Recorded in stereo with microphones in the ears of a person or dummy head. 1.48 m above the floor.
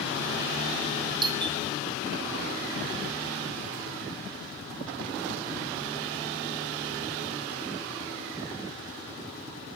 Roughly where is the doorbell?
Right.